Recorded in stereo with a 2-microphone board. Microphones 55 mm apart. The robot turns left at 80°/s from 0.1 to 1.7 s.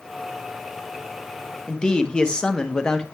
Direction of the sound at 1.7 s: 15° left (ahead or behind).